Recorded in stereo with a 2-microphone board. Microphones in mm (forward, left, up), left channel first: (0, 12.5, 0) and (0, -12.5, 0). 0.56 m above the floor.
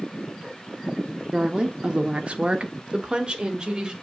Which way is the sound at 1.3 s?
30° right (ahead or behind).